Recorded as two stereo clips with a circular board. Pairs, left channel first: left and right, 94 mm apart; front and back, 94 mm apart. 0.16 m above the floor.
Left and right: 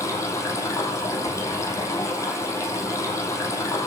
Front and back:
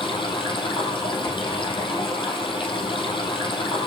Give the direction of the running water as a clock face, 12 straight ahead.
11 o'clock.